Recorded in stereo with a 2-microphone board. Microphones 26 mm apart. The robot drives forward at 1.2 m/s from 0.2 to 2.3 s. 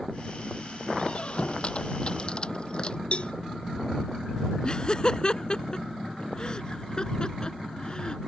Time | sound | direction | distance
1.0 | a squeak | 45° left (ahead or behind) | ?
3.1 | a cowbell | 45° left (ahead or behind) | ?
4.6 | laughter | 30° left (ahead or behind) | ?